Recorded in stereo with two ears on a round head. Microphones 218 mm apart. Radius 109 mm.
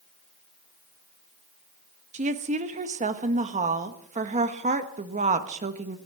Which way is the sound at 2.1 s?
30° right (ahead or behind).